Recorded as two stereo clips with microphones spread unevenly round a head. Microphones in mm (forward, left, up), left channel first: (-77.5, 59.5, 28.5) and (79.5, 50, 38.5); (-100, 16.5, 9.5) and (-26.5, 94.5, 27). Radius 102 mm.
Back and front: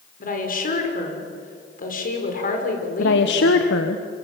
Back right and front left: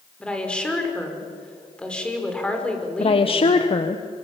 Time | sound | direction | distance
0.2 | a woman speaking | 145° left | 5.5 m
3.0 | a woman speaking | 170° right | 1.4 m